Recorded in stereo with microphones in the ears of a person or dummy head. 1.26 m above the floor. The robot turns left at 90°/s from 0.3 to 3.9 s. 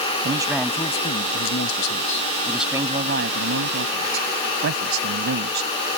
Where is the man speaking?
155° right; by 5.7 s 115° right.